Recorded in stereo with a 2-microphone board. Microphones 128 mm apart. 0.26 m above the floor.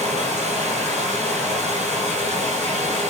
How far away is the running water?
About 1.1 m.